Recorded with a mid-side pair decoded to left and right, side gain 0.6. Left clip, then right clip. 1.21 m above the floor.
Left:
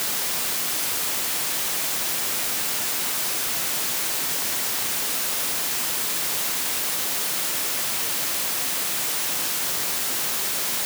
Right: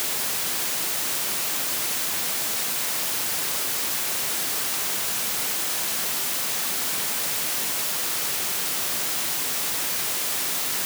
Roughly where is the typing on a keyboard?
I don't hear typing on a keyboard.